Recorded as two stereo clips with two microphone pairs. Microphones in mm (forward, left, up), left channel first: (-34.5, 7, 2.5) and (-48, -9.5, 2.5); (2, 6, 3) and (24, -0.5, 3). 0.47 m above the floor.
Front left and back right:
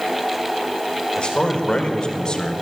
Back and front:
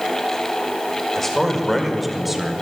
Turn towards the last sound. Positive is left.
turn(degrees=50)